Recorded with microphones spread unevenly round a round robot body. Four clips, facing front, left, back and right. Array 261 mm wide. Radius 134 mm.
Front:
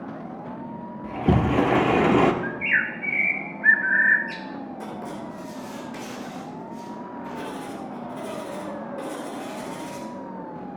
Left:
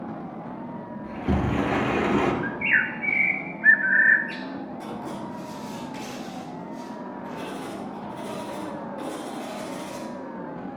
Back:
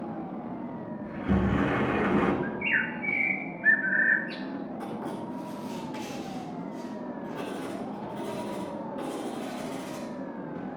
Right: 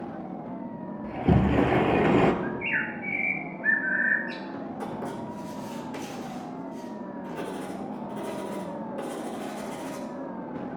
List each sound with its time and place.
1.0 s a sliding door: 15° right, 1.1 m
2.4 s a bird: 70° left, 1.4 m
4.8 s writing: 70° right, 4 m